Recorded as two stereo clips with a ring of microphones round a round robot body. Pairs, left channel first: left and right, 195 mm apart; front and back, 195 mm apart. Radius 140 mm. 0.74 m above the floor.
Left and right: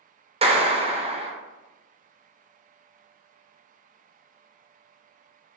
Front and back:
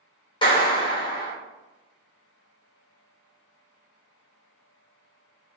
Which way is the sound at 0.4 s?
50° right.